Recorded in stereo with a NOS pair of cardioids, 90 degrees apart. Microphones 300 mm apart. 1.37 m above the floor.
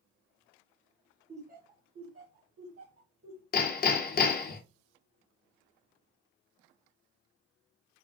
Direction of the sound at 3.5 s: 30° left.